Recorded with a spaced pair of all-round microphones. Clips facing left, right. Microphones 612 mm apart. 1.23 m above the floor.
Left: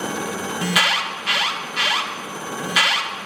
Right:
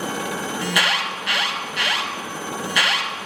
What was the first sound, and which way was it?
An alarm, 35° left (ahead or behind).